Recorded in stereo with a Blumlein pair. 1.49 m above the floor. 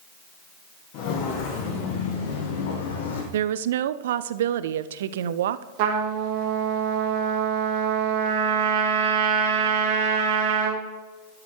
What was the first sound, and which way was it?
Footsteps, 45° left.